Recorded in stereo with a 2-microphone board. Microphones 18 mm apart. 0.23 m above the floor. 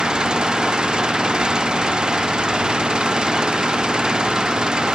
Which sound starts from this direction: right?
An engine running, at 0.0 s.